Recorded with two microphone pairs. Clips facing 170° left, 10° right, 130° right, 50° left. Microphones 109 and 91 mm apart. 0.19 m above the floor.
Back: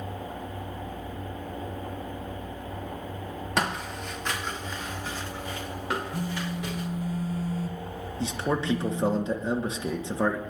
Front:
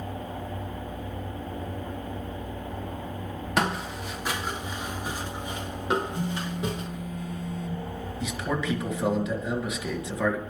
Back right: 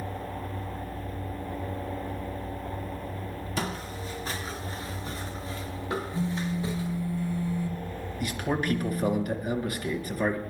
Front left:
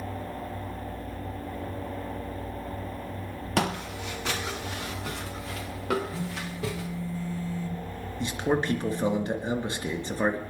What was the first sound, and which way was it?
Footsteps, 80° left.